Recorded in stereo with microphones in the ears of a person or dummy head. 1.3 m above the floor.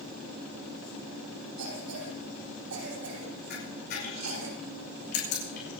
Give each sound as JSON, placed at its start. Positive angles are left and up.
{"t": 1.6, "sound": "a cough", "side_deg": -85, "distance_m": 9.5}
{"t": 3.5, "sound": "a camera shutter", "side_deg": 60, "distance_m": 5.0}